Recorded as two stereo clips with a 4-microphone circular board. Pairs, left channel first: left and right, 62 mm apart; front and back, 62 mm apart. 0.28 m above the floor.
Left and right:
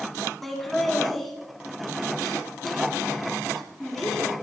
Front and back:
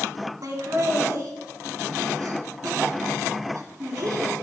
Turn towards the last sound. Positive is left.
turn(degrees=175)